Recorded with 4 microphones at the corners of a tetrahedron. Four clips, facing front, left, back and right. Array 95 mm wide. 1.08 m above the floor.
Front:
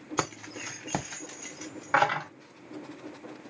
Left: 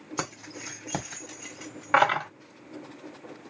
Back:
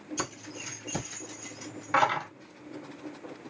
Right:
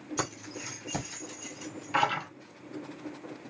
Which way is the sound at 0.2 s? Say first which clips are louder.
Left 2 dB, front 9 dB; 15° left.